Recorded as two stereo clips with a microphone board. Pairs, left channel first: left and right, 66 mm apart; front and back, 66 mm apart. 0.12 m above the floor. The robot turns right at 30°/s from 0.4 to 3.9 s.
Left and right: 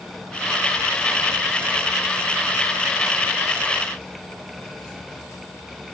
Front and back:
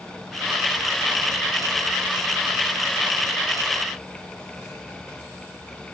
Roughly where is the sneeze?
I don't hear a sneeze.